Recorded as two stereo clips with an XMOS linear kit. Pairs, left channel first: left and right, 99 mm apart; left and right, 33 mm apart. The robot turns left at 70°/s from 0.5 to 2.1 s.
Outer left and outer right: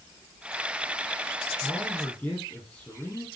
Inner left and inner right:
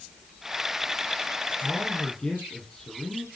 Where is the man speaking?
165° right, 3.5 m; by 3.3 s 160° left, 3.5 m.